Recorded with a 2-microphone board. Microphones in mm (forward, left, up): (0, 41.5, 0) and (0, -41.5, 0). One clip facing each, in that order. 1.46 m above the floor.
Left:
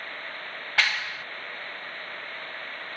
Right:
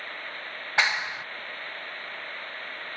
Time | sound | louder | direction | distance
0.8 | a clap | right 1 dB | 20° right (ahead or behind) | ?